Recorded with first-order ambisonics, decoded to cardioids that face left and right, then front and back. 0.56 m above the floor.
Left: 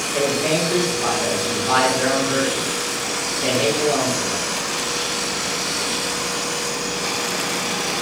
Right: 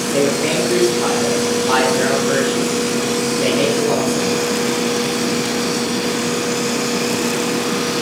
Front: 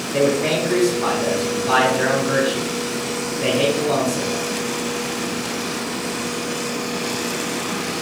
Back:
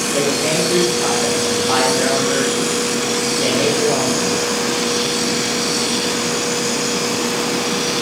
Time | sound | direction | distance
0.1 | a man speaking | 85° right | 0.8 m